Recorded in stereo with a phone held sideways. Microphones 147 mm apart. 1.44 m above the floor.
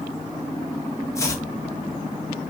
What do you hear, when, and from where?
1.1 s chopping: 20° left (ahead or behind), 0.7 m